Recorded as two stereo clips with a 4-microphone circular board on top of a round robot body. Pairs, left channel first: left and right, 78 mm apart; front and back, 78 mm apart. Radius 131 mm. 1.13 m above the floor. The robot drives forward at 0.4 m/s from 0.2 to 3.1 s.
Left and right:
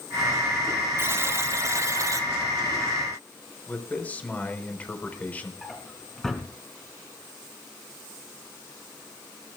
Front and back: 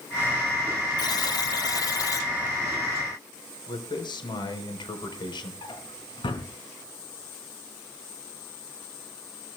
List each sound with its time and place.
1.0 s a buzzer: 35° right, 2 m; by 2.3 s 45° right, 1.6 m
3.7 s a man speaking: 20° left, 4.5 m
5.6 s a drawer: 5° left, 4.5 m